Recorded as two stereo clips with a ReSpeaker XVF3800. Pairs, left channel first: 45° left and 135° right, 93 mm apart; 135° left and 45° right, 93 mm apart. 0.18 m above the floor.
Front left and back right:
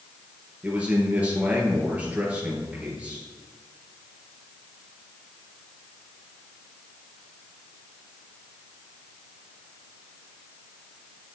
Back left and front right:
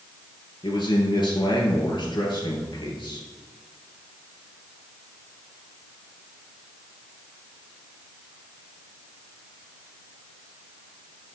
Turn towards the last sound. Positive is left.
turn(degrees=155)